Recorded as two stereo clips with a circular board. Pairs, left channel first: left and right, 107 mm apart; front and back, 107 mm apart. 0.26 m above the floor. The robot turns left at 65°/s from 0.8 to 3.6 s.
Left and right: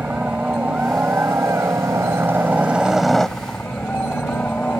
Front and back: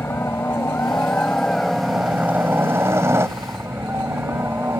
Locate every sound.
0.0 s a helicopter: 30° right; by 4.8 s 150° left